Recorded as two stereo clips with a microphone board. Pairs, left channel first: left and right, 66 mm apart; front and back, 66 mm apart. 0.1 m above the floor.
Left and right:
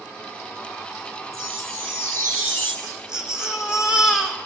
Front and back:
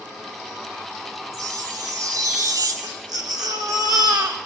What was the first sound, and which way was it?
A chime, 165° left.